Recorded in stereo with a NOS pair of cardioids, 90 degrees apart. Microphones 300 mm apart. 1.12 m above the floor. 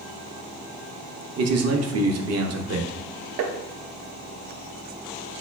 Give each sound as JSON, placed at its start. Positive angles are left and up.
{"t": 1.4, "sound": "a man speaking", "azimuth_deg": -55, "distance_m": 0.7}
{"t": 3.4, "sound": "tapping", "azimuth_deg": -65, "distance_m": 0.5}